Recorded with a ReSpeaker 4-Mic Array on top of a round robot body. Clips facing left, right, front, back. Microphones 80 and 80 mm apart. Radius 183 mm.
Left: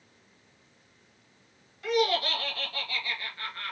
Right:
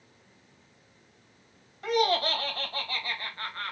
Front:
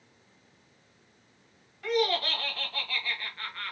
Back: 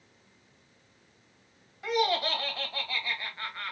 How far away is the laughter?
About 1.3 m.